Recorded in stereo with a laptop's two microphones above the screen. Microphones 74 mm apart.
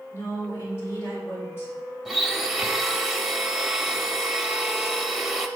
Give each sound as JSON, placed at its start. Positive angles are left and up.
{"t": 0.1, "sound": "a woman speaking", "side_deg": 35, "distance_m": 3.5}
{"t": 2.0, "sound": "a blender", "side_deg": -5, "distance_m": 0.8}